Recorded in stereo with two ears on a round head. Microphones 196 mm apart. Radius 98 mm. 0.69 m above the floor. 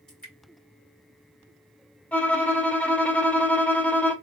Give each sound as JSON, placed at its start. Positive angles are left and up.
{"t": 0.1, "sound": "dripping", "side_deg": 5, "distance_m": 2.5}
{"t": 2.1, "sound": "a violin", "side_deg": 5, "distance_m": 0.8}